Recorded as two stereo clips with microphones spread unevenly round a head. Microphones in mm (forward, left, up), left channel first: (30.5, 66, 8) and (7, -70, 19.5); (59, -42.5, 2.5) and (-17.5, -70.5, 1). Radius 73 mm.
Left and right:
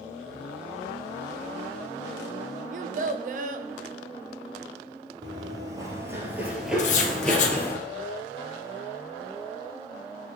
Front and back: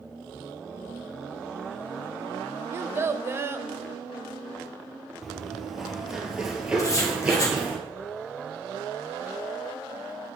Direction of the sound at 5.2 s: 70° right.